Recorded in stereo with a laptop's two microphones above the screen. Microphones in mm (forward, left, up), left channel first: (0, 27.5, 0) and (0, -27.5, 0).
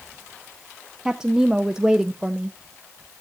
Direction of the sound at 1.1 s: 10° right (ahead or behind).